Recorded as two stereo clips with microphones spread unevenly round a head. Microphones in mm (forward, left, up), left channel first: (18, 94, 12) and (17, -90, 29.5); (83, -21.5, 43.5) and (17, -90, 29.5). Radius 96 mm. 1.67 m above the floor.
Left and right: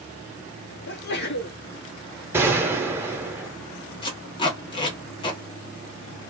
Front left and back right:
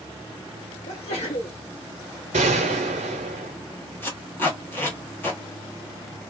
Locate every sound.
0.9 s a sneeze: 55° left, 0.7 m
2.3 s a gunshot: 165° right, 0.6 m
4.0 s tape being pulled: 40° left, 1.0 m